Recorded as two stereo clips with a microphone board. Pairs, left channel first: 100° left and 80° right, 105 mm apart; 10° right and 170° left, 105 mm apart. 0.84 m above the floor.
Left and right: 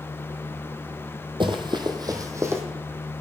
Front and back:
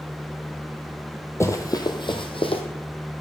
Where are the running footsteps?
65° right, 1.3 m; by 2.6 s 15° right, 1.7 m.